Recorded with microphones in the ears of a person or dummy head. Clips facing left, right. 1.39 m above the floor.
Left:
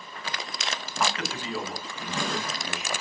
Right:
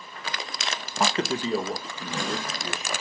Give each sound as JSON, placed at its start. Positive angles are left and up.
{"t": 1.0, "sound": "a man speaking", "side_deg": -25, "distance_m": 0.6}